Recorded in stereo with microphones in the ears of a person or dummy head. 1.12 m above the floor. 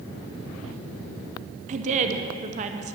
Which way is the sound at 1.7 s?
35° right (ahead or behind).